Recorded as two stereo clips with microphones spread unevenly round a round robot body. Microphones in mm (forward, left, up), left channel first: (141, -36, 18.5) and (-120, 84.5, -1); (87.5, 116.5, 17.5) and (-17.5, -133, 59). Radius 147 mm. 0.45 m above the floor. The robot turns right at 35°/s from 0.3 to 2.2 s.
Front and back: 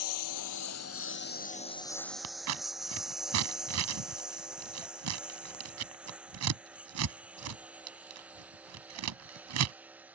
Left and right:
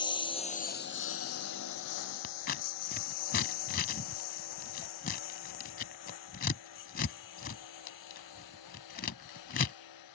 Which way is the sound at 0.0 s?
10° right.